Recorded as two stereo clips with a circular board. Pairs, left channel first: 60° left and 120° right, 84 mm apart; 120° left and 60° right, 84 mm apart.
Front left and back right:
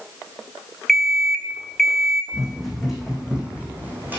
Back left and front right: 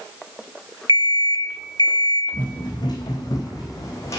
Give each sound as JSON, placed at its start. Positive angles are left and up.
{"t": 0.9, "sound": "an alarm clock", "azimuth_deg": 145, "distance_m": 0.8}
{"t": 2.3, "sound": "running footsteps", "azimuth_deg": 145, "distance_m": 2.0}